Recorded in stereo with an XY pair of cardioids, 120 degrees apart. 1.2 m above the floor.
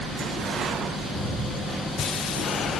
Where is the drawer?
5° right, 5 m.